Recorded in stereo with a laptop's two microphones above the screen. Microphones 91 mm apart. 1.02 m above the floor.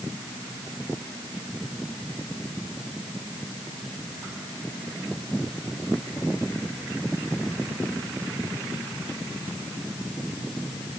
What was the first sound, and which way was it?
Only background noise.